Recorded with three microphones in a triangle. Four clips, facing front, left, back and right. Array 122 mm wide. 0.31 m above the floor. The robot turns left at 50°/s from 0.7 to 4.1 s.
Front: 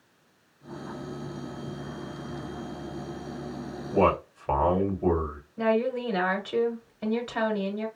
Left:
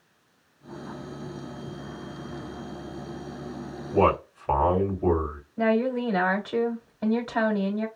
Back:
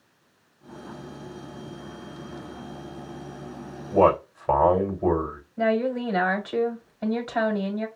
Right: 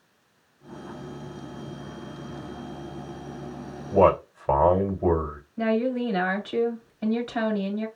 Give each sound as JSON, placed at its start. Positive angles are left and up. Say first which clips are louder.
{"t": 3.9, "sound": "a man speaking", "louder": "right 3 dB, back 4 dB", "azimuth_deg": -110, "distance_m": 1.5}
{"t": 5.6, "sound": "a woman speaking", "louder": "left 1 dB, back 2 dB", "azimuth_deg": 130, "distance_m": 1.5}